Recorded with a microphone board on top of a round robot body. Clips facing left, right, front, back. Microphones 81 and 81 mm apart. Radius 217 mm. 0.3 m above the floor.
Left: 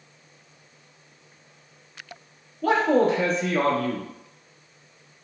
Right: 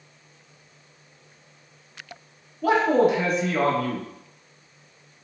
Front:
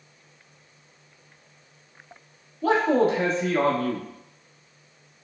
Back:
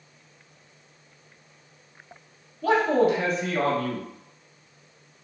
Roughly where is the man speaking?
Ahead.